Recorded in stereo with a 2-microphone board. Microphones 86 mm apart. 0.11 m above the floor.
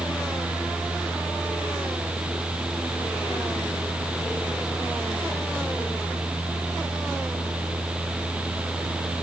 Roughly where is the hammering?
I don't hear hammering.